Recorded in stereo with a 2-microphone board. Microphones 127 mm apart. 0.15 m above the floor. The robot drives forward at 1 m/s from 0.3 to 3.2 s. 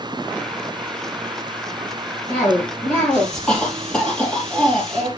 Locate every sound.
2.3 s a cough: 10° left (ahead or behind), 4.5 m; by 5.1 s 5° left (ahead or behind), 5 m